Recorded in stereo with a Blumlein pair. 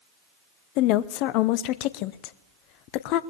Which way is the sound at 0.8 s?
40° left.